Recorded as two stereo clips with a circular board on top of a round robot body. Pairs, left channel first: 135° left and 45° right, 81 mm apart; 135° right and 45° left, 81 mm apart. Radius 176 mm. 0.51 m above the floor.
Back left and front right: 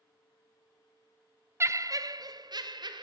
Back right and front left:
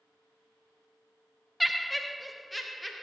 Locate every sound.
1.6 s laughter: 45° right, 0.7 m